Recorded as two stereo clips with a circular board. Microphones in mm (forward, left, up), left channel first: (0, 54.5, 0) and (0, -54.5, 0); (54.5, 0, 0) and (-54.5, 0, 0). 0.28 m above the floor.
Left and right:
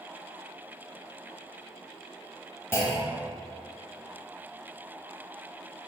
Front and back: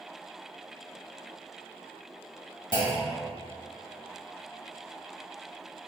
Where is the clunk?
30° left, 0.6 m.